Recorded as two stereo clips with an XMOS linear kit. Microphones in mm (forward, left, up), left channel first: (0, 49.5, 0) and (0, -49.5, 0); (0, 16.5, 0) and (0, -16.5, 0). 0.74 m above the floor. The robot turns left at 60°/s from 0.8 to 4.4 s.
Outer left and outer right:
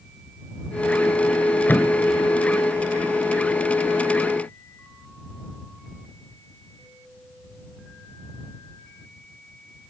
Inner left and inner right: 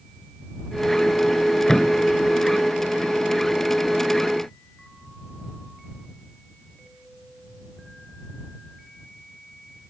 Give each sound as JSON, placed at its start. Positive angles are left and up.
{"t": 1.7, "sound": "a thud", "side_deg": 20}